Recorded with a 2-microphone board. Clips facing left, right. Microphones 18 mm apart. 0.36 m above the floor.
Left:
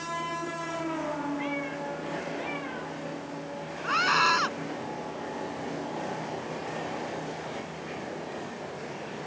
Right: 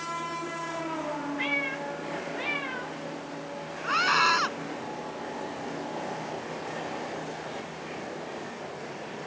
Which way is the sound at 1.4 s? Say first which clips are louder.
Right 3 dB; 45° right (ahead or behind).